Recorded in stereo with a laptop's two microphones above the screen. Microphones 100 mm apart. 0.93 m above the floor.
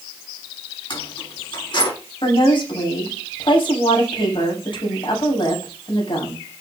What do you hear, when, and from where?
0.9 s keys jangling: 55° left (ahead or behind), 5 m
2.2 s a woman speaking: 55° left (ahead or behind), 7 m